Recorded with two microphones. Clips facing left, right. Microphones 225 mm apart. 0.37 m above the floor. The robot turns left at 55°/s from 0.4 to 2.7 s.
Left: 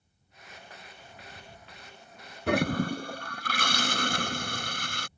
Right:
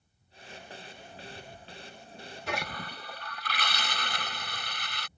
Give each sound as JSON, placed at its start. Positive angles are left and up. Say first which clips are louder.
{"t": 2.5, "sound": "a toilet flushing", "louder": "left 13 dB", "side_deg": 55}